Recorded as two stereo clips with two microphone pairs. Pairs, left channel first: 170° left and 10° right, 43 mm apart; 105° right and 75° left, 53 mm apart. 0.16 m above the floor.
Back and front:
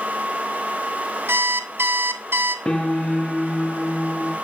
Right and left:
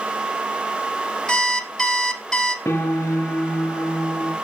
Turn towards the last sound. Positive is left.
turn(degrees=-120)